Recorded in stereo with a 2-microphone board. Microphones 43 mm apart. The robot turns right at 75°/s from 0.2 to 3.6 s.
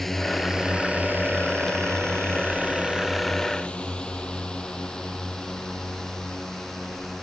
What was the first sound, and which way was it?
A drone, 5° left (ahead or behind).